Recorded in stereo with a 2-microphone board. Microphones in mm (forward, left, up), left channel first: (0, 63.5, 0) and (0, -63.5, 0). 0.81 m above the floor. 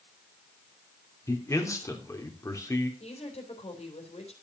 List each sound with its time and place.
1.3 s a man speaking: 25° left (ahead or behind), 2.5 m
3.0 s a woman speaking: 55° left (ahead or behind), 3.5 m